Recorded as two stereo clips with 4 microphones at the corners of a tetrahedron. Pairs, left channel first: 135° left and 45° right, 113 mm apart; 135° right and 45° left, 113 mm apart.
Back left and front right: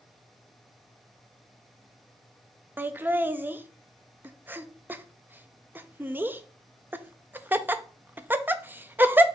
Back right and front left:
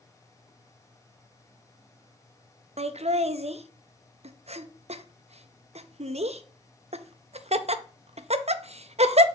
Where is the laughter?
25° left, 0.6 m.